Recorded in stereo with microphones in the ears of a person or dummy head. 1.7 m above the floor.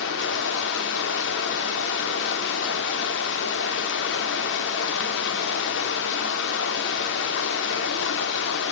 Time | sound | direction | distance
0.0 | running water | 60° left (ahead or behind) | 3 m